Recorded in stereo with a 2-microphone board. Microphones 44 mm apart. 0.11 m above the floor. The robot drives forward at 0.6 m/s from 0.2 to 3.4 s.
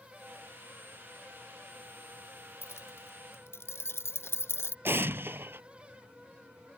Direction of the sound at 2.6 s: 70° left (ahead or behind).